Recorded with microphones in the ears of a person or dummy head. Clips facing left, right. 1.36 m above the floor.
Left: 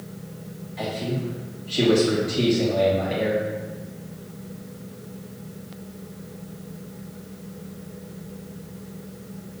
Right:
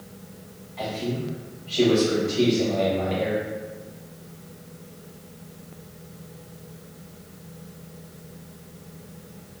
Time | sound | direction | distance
0.8 | a man speaking | 10° left (ahead or behind) | 1.4 m